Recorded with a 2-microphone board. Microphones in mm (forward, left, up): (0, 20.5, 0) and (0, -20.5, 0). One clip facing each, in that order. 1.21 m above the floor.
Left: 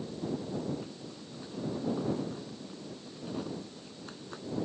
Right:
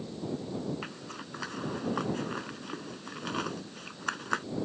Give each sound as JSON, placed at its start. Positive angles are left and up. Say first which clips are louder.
{"t": 0.8, "sound": "a zipper", "louder": "right 3 dB", "side_deg": -80}